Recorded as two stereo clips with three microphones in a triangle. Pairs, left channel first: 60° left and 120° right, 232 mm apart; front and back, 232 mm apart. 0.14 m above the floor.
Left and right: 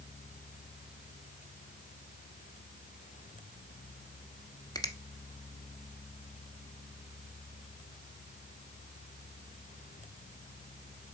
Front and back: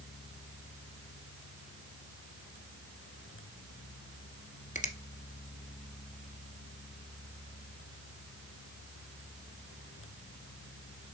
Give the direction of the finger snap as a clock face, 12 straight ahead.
12 o'clock.